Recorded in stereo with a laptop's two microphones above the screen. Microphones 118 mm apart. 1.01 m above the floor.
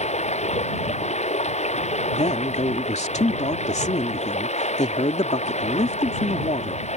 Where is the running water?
75° left (ahead or behind).